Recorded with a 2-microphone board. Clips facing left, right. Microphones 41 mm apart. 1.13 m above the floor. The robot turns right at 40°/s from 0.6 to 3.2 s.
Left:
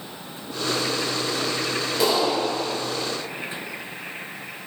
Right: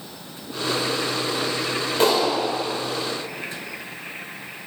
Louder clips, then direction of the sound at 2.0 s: Right 2 dB; 50° right (ahead or behind).